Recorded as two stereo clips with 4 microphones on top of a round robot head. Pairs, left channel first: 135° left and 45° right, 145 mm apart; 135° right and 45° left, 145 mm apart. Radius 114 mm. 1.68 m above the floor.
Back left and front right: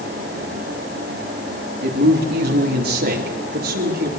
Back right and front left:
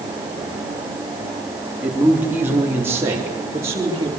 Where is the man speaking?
40° right, 3 m; by 4.1 s 30° right, 5 m.